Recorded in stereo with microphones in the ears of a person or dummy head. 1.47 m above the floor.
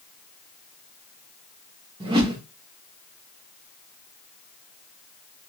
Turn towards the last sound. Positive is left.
turn(degrees=-25)  # may be behind; listen again after turning